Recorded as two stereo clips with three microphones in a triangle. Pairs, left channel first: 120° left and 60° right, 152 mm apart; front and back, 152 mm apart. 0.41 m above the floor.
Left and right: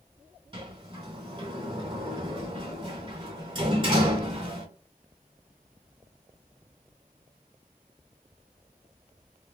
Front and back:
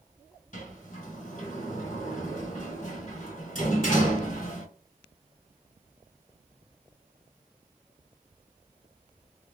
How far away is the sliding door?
About 2.0 m.